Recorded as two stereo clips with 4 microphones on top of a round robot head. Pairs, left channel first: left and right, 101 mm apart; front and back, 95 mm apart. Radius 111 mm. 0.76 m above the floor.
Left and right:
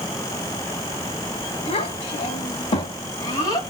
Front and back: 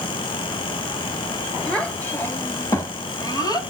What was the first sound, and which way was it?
A child speaking, 80° left.